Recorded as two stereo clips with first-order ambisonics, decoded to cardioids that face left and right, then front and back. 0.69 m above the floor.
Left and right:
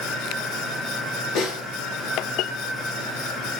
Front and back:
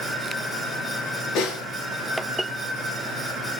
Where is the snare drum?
45° left, 4 m.